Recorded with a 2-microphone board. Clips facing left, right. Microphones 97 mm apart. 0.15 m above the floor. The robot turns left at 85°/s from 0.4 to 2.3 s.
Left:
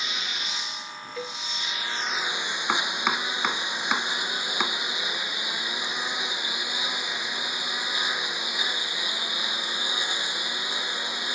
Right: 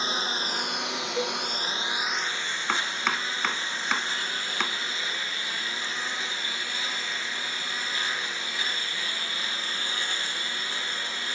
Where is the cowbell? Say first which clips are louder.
Right 6 dB; 25° right (ahead or behind); by 1.4 s 5° right (ahead or behind).